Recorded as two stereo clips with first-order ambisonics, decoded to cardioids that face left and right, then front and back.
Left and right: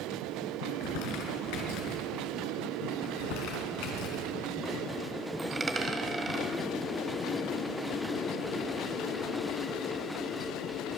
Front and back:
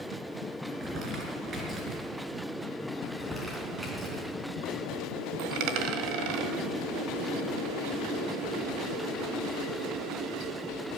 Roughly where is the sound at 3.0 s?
Left.